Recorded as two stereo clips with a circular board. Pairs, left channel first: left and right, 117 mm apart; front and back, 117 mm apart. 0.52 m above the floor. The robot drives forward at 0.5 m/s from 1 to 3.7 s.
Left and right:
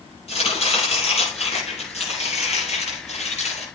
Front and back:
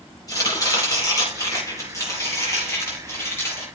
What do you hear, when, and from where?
0.3 s chopping: 60° left, 7.5 m; by 3.6 s 70° left, 7 m